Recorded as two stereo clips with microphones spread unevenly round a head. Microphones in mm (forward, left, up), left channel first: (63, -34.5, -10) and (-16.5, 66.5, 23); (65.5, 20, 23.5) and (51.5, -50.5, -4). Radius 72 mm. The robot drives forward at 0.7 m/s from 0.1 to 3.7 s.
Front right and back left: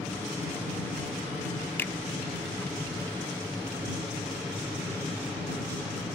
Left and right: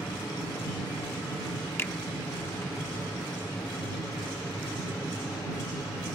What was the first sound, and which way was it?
An aircraft, 30° left.